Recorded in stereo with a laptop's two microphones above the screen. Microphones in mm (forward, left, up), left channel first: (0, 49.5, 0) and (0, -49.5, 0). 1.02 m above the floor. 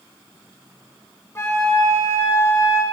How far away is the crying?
No crying in this recording.